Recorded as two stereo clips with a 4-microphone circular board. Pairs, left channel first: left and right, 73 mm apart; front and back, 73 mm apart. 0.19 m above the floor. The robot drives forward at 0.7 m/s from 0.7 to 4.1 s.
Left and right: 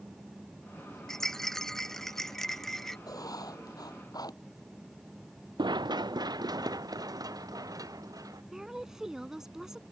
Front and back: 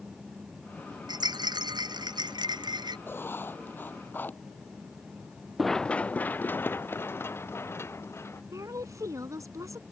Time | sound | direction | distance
1.1 | a rattle | 175° left | ?
3.1 | writing | 60° left | ?
5.6 | running footsteps | 90° right | ?
8.5 | a woman speaking | 170° right | ?